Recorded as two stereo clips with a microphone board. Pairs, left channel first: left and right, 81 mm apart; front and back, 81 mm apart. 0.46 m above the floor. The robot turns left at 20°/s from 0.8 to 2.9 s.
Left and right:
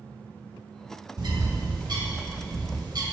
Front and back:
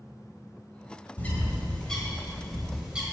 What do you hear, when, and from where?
1.2 s a bird: 65° right, 1.6 m; by 3.0 s 100° right, 1.6 m